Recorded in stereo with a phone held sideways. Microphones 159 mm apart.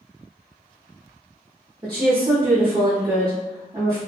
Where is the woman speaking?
30° right (ahead or behind), 0.7 m.